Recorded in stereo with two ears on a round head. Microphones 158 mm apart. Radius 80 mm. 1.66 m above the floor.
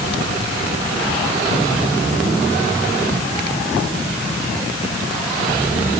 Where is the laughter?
No laughter in this recording.